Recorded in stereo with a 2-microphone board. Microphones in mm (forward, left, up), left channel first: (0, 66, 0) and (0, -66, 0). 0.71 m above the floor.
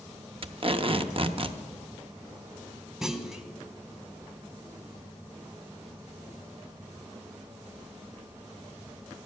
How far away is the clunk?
About 0.9 m.